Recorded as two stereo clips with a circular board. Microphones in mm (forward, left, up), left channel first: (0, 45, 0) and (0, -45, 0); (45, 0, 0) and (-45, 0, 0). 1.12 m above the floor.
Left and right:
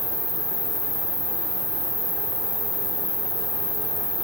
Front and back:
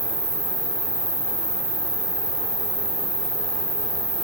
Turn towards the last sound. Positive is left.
turn(degrees=175)